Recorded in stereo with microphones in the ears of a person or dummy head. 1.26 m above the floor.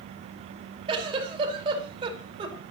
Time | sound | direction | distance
0.9 | a giggle | 35° right (ahead or behind) | 5 m